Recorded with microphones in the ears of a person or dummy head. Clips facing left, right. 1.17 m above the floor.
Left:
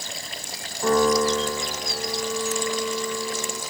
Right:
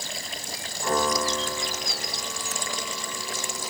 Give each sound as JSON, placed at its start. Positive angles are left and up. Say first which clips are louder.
{"t": 0.8, "sound": "a piano", "louder": "left 7 dB", "side_deg": 50, "distance_m": 6.5}